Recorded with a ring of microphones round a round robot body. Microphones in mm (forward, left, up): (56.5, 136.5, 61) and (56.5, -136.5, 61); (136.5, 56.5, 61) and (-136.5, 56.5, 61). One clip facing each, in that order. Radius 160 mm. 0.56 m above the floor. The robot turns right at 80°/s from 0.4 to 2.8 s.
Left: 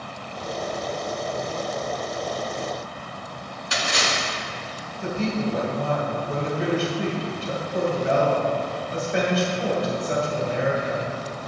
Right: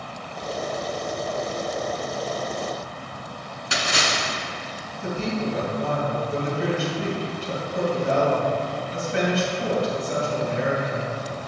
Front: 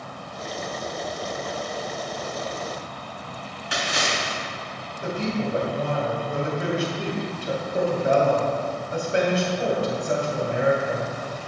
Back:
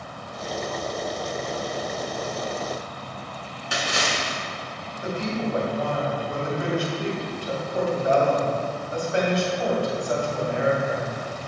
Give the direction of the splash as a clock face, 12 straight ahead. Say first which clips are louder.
Even, even; 4 o'clock.